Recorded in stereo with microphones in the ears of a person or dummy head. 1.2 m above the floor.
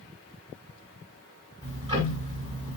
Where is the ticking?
25° right (ahead or behind), 2 m.